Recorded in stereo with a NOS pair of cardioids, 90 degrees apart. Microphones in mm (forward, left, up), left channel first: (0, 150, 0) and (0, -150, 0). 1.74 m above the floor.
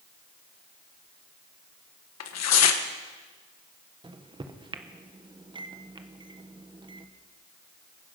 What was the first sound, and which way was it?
Tearing paper, 60° left.